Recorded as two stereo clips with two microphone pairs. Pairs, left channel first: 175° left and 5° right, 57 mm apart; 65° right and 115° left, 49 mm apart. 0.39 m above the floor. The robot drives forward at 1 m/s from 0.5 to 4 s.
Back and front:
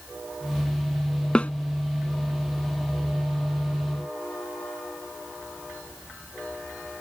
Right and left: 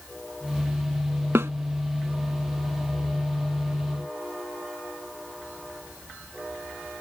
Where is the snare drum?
105° left; by 1.5 s 120° left.